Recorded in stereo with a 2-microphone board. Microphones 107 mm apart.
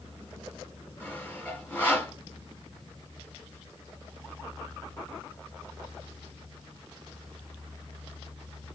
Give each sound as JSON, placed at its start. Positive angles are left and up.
{"t": 1.0, "sound": "sawing", "side_deg": 15, "distance_m": 1.1}